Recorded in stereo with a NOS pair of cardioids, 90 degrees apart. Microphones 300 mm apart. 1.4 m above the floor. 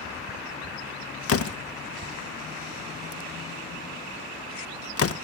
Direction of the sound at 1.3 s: 50° left.